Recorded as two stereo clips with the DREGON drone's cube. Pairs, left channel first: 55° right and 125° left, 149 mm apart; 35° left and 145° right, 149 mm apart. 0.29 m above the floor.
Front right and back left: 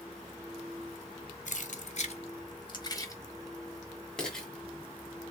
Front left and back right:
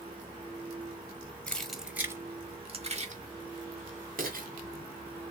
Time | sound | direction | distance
1.5 | keys jangling | 45° right | 0.9 m